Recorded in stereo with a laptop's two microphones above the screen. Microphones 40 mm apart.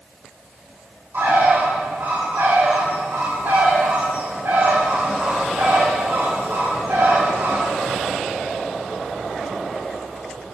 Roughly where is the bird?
Right.